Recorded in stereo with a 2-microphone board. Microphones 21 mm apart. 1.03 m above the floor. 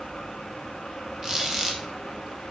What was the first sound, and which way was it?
A squeak, 25° right (ahead or behind).